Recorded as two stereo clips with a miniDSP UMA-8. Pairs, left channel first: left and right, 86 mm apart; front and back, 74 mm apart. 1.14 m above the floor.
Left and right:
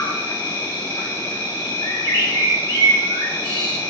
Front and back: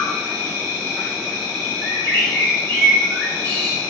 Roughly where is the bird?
Ahead left.